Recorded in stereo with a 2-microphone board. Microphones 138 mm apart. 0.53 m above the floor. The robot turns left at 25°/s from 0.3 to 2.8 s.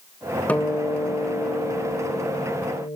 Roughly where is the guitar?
Behind.